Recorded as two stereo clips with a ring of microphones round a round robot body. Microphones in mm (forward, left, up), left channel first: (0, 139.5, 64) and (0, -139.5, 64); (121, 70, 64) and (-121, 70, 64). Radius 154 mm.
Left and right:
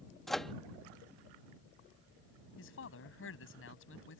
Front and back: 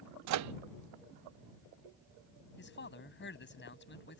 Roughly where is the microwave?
Behind.